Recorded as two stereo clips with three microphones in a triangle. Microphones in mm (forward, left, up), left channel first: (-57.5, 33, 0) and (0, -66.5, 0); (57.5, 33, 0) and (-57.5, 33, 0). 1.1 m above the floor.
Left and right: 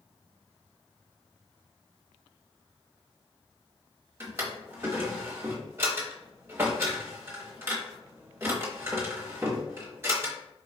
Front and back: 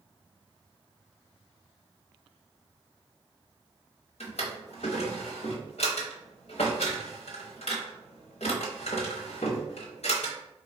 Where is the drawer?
5° left, 0.9 m.